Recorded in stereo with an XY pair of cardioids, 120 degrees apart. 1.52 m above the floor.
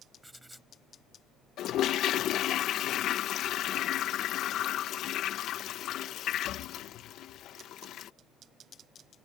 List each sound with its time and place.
0.2 s writing: 5° right
1.6 s a toilet flushing: 70° left